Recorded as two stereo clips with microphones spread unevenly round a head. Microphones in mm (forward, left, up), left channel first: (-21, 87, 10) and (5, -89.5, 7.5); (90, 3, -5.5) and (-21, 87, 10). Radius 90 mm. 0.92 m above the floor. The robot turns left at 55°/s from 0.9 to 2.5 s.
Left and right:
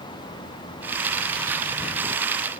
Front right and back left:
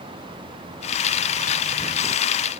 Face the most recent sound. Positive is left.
No sound to turn to.